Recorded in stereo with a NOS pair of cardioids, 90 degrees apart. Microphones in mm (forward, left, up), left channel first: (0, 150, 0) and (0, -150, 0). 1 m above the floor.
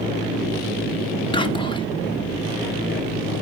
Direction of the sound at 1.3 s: 15° left.